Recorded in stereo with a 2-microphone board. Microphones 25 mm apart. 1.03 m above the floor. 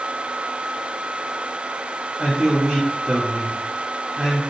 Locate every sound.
2.2 s a man speaking: 55° right (ahead or behind), 2 m